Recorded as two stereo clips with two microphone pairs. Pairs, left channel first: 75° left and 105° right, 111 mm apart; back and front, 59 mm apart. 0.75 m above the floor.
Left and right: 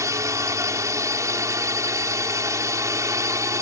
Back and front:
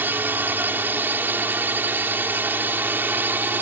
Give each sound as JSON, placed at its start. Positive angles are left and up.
{"t": 0.0, "sound": "a drone", "azimuth_deg": -50}